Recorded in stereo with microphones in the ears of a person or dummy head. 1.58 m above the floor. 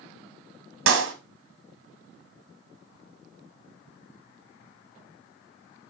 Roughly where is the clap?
Right.